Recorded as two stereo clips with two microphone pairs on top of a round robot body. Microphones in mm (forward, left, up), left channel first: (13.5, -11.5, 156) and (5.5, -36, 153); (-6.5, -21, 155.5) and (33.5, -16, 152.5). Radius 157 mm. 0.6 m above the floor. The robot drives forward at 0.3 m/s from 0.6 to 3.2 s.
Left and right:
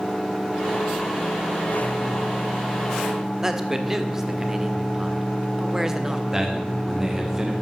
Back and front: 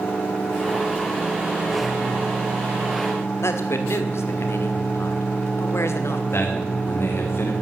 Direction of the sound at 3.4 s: Straight behind.